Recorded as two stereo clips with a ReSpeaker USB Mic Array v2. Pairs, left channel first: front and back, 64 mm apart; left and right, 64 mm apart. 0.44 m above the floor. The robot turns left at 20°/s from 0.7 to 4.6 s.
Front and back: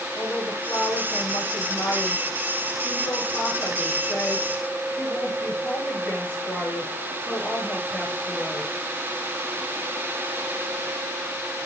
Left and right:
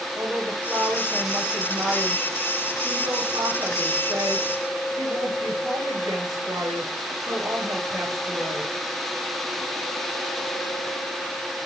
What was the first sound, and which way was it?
A woman speaking, straight ahead.